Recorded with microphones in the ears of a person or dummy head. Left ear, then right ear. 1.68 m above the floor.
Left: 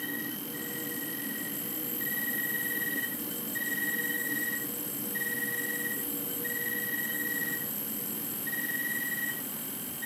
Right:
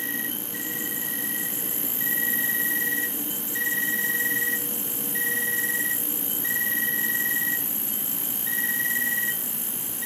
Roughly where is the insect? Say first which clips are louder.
Right 5 dB; right.